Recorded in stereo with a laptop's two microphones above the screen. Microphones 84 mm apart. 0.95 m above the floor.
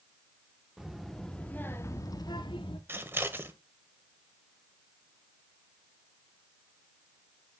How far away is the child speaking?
About 1.4 m.